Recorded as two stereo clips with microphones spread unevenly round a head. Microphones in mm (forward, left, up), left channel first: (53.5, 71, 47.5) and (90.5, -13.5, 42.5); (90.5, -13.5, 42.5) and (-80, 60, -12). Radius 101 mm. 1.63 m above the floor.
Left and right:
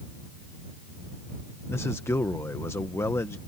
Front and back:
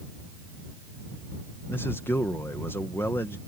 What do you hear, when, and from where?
1.7 s a man speaking: 50° left